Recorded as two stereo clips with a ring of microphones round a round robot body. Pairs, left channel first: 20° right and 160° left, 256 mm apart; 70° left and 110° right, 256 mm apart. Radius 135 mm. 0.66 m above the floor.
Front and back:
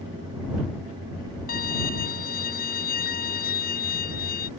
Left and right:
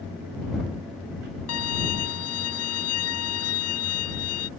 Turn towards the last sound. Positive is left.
turn(degrees=35)